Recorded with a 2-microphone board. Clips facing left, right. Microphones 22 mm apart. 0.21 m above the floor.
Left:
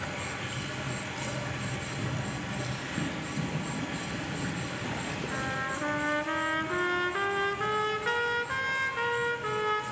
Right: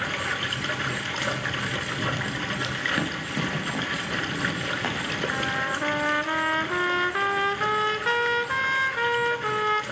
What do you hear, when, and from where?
0.0 s running water: 65° right (ahead or behind), 1.1 m
3.0 s running footsteps: 80° right, 2.5 m; by 5.2 s 70° right (ahead or behind), 4.5 m
5.3 s a trumpet: 20° right (ahead or behind), 0.7 m